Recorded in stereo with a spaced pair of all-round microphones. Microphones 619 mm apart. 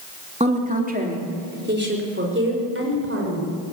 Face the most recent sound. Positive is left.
turn(degrees=-20)  # may be behind; listen again after turning